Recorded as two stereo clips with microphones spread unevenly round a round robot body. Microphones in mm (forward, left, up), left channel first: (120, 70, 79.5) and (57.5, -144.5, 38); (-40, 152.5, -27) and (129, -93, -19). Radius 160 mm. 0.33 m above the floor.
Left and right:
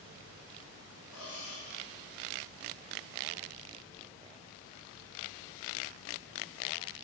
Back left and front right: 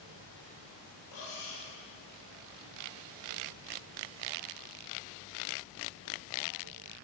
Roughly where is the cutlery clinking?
Behind left.